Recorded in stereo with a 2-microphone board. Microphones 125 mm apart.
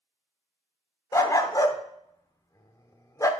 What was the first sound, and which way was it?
A dog barking, 25° left (ahead or behind).